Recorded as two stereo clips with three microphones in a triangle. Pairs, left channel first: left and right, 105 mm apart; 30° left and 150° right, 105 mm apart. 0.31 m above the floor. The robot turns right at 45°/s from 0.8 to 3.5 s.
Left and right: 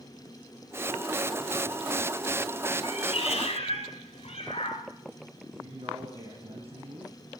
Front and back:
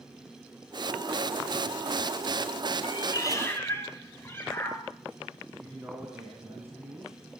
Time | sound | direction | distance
2.8 | a cat meowing | 65° left | 2 m
5.5 | a man speaking | 80° right | 3 m